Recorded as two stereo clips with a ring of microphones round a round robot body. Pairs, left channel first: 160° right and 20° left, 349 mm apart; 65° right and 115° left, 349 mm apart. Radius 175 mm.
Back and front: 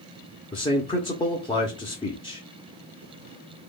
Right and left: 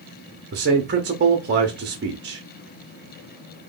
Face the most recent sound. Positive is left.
turn(degrees=140)